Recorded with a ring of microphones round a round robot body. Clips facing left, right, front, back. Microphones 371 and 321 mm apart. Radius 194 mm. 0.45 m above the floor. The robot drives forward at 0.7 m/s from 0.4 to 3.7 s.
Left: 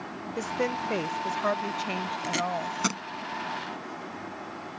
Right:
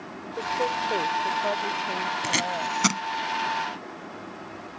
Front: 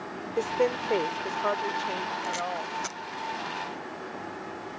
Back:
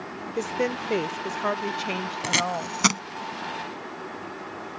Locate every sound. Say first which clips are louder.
0.4 s a woman speaking: even, front 1 dB; 125° left; by 3.2 s 155° left
2.2 s tape being pulled: right 1 dB, back 4 dB; 155° right; by 3.0 s 160° right